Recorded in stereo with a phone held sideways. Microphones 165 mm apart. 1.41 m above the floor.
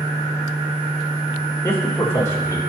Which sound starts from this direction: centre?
A man speaking, at 1.6 s.